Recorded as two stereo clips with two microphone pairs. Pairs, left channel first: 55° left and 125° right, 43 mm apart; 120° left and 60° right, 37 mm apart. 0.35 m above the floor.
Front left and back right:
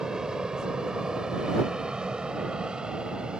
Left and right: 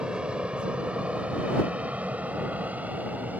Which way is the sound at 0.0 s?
75° right.